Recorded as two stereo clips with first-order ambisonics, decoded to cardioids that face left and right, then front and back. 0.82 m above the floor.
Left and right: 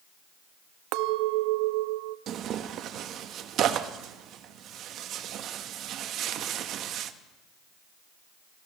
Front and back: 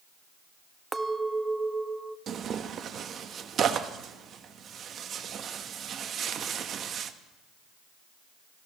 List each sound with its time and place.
0.9 s a clink: 100° right, 0.6 m
2.3 s tearing paper: 130° right, 0.8 m